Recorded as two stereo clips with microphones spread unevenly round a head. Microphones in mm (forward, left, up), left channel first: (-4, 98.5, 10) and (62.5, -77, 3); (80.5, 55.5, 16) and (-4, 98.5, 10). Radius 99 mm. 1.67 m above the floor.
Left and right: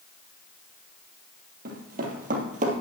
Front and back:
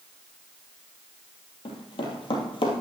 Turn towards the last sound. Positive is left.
turn(degrees=-25)